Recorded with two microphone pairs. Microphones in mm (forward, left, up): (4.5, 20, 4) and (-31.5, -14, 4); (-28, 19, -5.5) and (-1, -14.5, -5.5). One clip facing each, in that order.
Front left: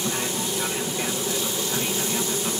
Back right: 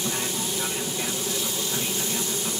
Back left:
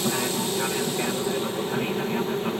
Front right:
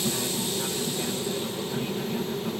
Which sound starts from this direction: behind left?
An aircraft, at 0.0 s.